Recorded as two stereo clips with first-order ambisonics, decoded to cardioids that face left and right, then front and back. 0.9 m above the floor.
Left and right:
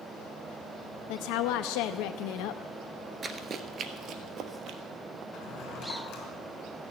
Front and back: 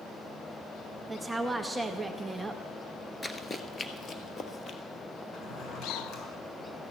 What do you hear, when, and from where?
1.1 s a woman speaking: 100° left, 0.7 m
3.2 s running footsteps: 70° right, 0.9 m; by 4.8 s 55° right, 1.5 m
5.3 s a drawer: 50° left, 4 m